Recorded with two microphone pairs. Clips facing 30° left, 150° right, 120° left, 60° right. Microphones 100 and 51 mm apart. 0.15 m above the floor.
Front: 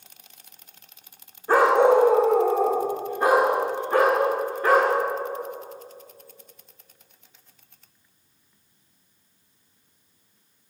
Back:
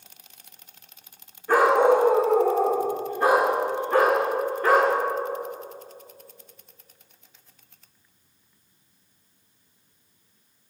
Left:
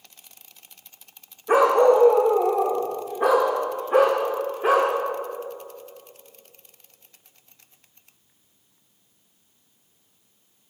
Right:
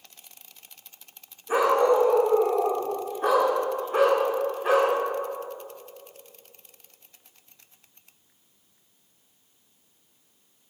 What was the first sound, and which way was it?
A dog barking, 90° left.